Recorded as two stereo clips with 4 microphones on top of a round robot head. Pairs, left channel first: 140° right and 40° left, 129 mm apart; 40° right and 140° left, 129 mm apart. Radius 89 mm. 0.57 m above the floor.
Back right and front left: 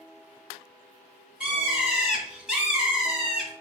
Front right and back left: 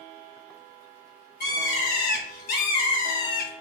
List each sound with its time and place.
1.4 s a bird: 40° right, 2.5 m